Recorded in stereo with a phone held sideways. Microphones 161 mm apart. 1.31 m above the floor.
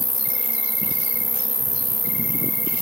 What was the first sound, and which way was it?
An insect, 40° left (ahead or behind).